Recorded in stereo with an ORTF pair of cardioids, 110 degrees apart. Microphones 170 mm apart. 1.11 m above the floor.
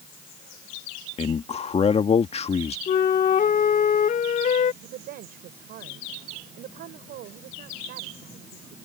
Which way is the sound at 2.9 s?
50° left.